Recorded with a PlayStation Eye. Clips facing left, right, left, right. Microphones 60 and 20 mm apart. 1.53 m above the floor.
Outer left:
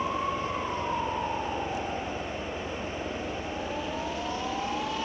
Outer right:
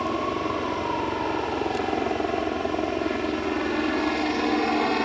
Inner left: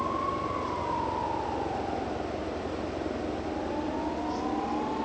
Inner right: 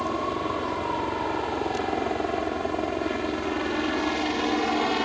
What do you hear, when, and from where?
0.0 s a helicopter: 70° right (ahead or behind); by 5.0 s 65° right (ahead or behind)